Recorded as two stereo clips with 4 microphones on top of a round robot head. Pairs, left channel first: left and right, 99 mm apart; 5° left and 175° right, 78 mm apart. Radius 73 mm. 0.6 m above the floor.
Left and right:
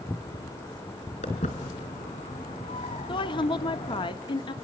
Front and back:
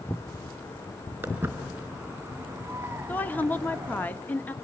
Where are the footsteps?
120° left, 4 m; by 4.1 s 125° left, 1.8 m.